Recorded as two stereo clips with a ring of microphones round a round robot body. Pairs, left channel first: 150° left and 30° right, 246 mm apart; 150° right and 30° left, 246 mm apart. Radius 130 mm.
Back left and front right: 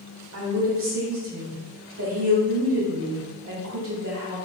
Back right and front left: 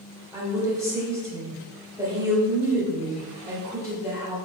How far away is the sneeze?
I don't hear a sneeze.